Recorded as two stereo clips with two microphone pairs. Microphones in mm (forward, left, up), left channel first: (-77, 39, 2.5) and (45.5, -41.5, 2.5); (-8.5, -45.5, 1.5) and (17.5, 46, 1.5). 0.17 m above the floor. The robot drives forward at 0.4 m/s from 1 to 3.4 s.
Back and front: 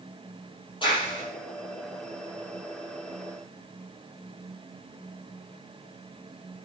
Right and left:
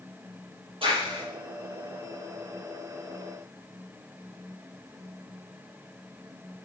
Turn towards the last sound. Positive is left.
turn(degrees=105)